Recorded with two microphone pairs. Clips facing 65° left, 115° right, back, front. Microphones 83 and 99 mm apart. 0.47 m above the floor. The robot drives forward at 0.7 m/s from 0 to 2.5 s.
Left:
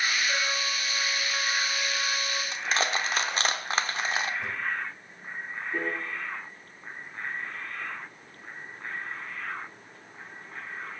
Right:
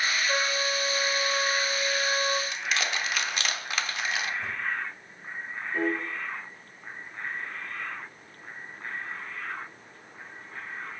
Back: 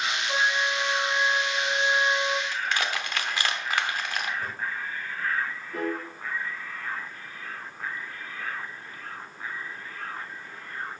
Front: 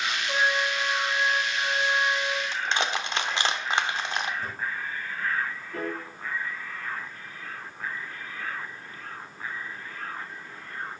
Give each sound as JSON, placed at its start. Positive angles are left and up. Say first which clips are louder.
{"t": 0.3, "sound": "a trumpet", "louder": "right 2 dB, front 1 dB", "azimuth_deg": -80, "distance_m": 2.0}
{"t": 2.5, "sound": "crushing", "louder": "left 2 dB, front 1 dB", "azimuth_deg": 45, "distance_m": 1.0}
{"t": 4.4, "sound": "a drawer", "louder": "even, even", "azimuth_deg": 140, "distance_m": 7.0}
{"t": 5.7, "sound": "a piano", "louder": "right 4 dB, back 3 dB", "azimuth_deg": 105, "distance_m": 5.0}